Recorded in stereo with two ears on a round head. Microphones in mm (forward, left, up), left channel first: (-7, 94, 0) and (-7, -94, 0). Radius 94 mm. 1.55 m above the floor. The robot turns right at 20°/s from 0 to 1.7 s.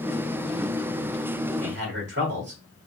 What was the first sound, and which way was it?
A man speaking, 60° right (ahead or behind).